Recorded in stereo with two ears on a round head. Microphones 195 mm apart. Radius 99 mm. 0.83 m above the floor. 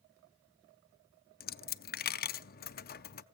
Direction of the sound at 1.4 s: 45° left (ahead or behind).